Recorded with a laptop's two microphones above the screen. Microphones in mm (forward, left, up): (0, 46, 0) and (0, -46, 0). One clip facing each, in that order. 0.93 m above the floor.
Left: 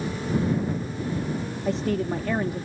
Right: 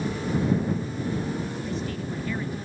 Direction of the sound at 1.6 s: 75° left (ahead or behind).